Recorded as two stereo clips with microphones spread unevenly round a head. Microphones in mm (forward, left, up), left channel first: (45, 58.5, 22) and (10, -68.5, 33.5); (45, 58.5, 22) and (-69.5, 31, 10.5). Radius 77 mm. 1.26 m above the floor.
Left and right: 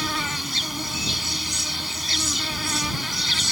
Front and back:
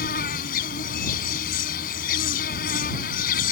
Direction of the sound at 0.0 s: 15° right.